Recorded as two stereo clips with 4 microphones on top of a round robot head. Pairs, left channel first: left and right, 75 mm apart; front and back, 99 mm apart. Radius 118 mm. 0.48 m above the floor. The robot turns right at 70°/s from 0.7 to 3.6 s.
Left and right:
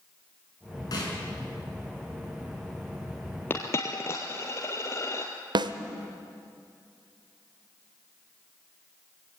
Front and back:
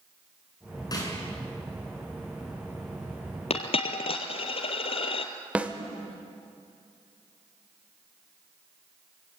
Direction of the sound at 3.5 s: 20° left.